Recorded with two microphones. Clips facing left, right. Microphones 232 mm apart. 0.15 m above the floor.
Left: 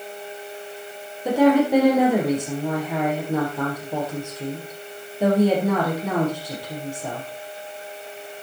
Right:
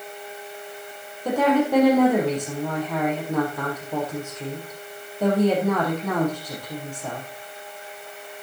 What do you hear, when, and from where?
1.2 s a woman speaking: 10° left (ahead or behind), 6 m